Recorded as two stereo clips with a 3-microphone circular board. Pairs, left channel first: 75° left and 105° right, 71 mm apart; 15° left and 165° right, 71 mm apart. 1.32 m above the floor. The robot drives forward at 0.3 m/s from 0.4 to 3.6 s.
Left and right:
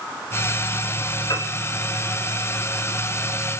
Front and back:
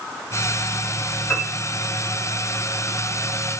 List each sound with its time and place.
1.3 s a piano: 75° left, 3.5 m; by 1.5 s 80° left, 3.5 m